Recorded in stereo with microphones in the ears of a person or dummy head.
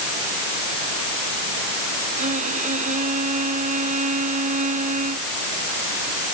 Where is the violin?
40° right (ahead or behind).